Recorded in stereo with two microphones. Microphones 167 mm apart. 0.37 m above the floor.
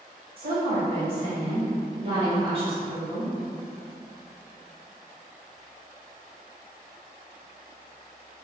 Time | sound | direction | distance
0.4 | a woman speaking | 35° right (ahead or behind) | 1.8 m